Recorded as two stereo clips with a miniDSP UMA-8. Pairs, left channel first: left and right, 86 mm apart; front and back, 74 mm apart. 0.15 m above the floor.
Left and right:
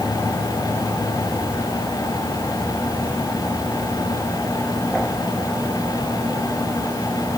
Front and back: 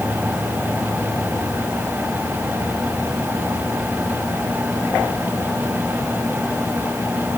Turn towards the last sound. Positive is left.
No sound to turn to.